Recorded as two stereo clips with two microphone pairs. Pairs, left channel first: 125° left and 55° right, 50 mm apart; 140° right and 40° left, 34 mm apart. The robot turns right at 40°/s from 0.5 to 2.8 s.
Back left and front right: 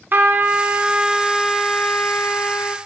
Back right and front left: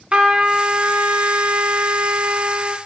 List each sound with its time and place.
0.1 s a trumpet: 10° right, 1.9 m; by 2.8 s 80° left, 1.9 m